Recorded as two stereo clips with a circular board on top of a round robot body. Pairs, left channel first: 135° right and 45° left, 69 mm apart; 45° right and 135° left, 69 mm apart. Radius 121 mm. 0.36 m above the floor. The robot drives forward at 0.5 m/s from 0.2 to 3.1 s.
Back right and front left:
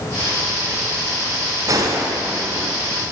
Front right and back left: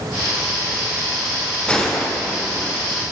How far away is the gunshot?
About 1.4 m.